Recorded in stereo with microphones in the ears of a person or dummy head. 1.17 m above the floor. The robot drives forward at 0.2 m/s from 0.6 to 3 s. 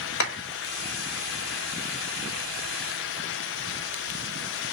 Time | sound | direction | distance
0.2 | a clap | 65° left (ahead or behind) | 1.7 m